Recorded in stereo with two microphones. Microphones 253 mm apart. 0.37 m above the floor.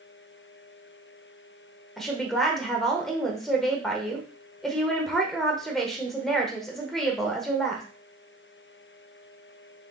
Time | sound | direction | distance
2.0 | a woman speaking | centre (ahead or behind) | 0.8 m